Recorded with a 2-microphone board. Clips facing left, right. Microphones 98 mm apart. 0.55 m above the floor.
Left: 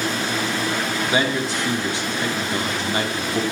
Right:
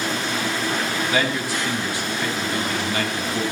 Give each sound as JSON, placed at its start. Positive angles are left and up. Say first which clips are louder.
{"t": 1.1, "sound": "a man speaking", "louder": "left 3 dB", "side_deg": 25, "distance_m": 1.2}